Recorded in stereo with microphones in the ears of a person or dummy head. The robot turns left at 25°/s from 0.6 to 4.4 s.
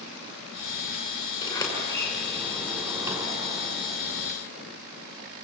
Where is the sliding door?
25° left, 6 m; by 3.9 s 35° right, 6 m.